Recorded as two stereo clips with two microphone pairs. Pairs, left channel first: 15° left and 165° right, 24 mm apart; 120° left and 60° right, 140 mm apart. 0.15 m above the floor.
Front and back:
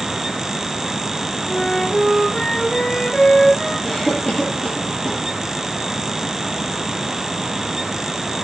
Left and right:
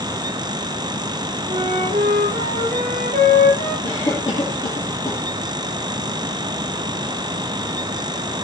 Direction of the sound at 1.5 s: 50° right.